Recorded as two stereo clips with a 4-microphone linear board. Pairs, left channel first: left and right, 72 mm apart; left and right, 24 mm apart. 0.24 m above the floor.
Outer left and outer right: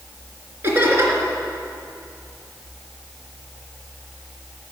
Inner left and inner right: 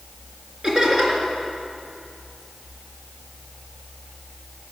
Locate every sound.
0.6 s laughter: 30° right (ahead or behind), 3 m